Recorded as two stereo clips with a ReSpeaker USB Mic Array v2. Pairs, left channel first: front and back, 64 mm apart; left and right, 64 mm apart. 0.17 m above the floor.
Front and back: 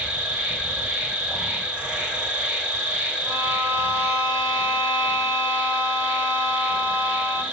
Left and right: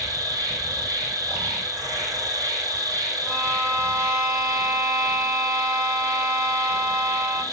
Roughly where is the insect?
Right.